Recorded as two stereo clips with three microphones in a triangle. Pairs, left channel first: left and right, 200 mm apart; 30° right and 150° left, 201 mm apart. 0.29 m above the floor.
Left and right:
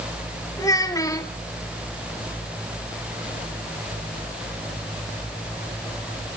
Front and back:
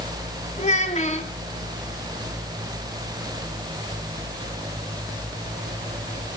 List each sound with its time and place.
0.6 s a child speaking: 20° left, 1.6 m